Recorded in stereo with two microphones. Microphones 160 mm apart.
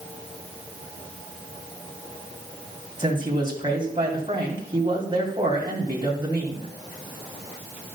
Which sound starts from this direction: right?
A man speaking, at 3.0 s.